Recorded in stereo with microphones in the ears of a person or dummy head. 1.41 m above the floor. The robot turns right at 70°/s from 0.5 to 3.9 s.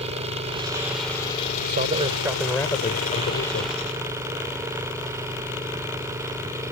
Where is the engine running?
35° right; by 6.7 s 160° right.